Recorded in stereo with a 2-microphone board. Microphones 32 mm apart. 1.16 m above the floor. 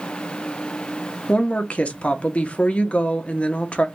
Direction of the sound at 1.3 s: 45° left (ahead or behind).